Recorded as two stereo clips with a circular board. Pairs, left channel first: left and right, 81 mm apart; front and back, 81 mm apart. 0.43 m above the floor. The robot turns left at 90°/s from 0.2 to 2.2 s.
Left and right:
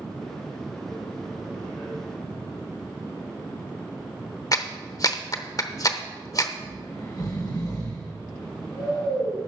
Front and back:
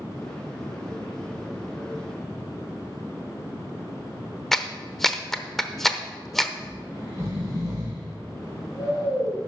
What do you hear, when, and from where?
4.5 s a clap: 85° left, 0.8 m
6.6 s snoring: 130° left, 5.5 m